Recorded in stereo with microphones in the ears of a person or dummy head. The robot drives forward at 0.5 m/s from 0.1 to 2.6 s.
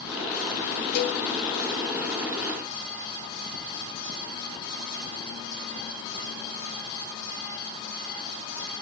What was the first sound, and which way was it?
A cowbell, 60° left (ahead or behind).